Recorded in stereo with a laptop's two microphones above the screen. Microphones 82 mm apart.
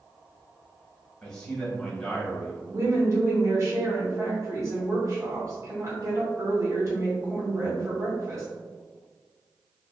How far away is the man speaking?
About 1.1 m.